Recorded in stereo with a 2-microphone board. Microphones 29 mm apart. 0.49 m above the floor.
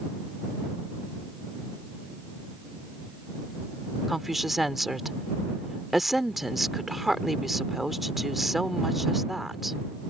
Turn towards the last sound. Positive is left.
turn(degrees=-5)  # may be behind; listen again after turning